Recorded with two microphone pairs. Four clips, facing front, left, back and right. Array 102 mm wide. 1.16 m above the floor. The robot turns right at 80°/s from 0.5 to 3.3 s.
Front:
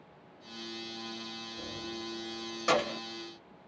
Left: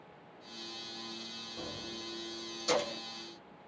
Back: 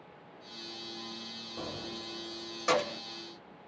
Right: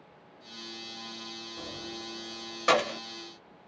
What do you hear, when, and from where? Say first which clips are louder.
1.6 s keys jangling: right 1 dB, back 1 dB; straight behind, 0.9 m; by 3.0 s 65° right, 0.9 m